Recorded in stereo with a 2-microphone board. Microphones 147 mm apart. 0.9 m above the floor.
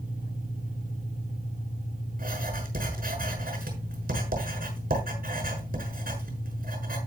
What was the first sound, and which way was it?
An engine running, 75° right (ahead or behind).